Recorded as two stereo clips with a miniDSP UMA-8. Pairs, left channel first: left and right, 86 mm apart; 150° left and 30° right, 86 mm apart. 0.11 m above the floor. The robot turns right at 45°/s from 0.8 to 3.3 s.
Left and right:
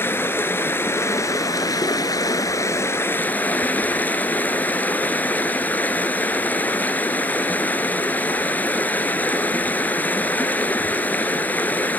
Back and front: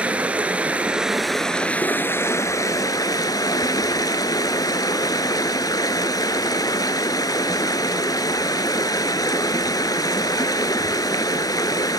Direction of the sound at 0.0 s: 40° left.